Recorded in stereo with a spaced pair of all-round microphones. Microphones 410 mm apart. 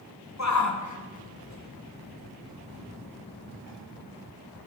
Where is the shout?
40° left (ahead or behind), 1.0 m; by 3.8 s 20° left (ahead or behind), 2 m.